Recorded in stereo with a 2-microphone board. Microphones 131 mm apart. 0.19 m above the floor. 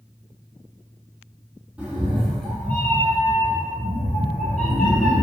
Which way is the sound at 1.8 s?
10° right (ahead or behind).